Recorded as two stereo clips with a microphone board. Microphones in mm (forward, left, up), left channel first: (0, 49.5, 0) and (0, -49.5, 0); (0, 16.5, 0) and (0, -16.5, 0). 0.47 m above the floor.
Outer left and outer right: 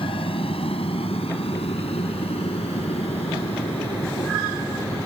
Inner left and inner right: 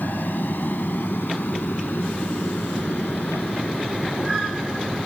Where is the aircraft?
65° left (ahead or behind); by 5.1 s 80° left.